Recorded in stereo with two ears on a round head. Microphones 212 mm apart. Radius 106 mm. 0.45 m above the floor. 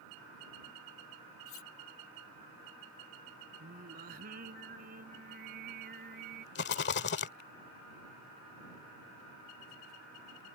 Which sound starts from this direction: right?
Singing, at 3.6 s.